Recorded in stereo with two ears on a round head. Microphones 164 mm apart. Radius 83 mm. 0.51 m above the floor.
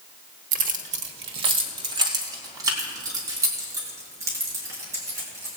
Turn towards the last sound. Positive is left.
turn(degrees=-15)  # may be behind; listen again after turning